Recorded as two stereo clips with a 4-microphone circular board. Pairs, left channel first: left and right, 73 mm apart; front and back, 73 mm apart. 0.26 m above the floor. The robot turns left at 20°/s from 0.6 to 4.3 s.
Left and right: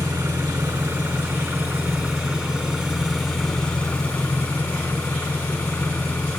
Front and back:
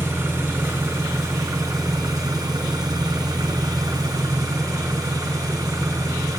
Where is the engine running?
130° right, 1.0 m; by 6.4 s 155° left, 1.0 m.